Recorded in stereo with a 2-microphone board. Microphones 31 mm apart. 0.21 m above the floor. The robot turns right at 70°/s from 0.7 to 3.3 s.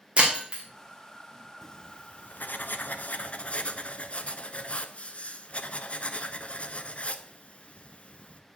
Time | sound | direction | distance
0.2 | breaking glass | 40° right (ahead or behind) | 2.5 m
1.6 | writing | 15° left | 0.6 m